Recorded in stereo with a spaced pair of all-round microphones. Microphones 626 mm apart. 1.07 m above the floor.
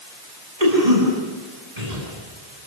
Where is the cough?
80° right, 9 m.